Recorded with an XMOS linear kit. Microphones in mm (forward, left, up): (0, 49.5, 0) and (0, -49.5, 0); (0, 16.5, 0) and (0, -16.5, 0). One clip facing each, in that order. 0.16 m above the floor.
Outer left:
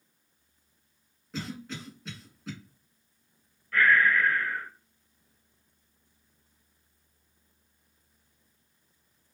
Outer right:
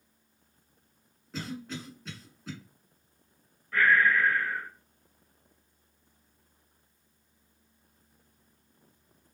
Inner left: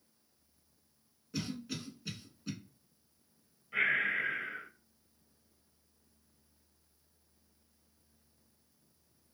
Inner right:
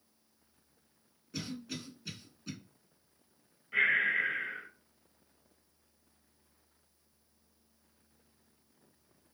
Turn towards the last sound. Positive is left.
turn(degrees=-15)  # may be behind; listen again after turning